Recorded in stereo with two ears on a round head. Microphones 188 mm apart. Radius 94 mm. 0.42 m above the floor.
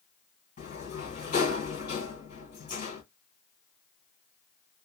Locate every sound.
0.6 s a sliding door: 40° left (ahead or behind), 2.5 m